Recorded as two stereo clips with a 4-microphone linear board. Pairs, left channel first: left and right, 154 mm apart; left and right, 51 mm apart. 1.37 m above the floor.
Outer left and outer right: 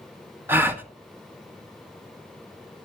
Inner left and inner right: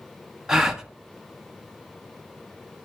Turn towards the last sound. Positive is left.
turn(degrees=-15)  # may be behind; listen again after turning